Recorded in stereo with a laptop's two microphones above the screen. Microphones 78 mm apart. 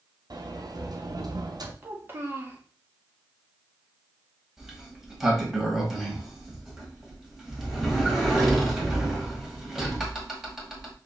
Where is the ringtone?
I don't hear a ringtone.